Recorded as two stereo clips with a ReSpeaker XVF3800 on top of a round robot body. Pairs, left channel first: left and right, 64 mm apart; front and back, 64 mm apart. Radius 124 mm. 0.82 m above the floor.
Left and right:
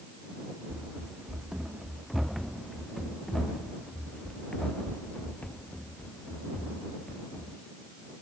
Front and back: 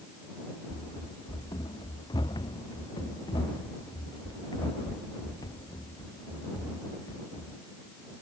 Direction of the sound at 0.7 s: 15° right.